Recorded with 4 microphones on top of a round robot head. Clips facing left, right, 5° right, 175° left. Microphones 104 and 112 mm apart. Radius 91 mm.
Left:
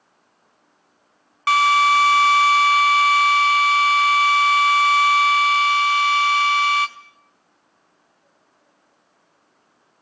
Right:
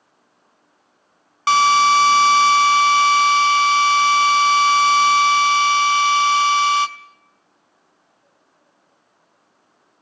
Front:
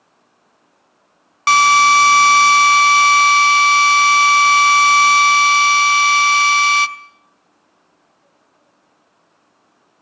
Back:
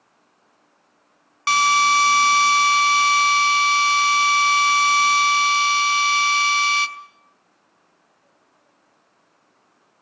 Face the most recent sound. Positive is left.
turn(degrees=-35)